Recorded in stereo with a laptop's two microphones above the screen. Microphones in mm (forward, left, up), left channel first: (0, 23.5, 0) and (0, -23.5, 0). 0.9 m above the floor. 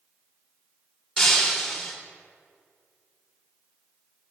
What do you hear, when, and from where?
1.2 s breaking glass: 5° right (ahead or behind), 1.8 m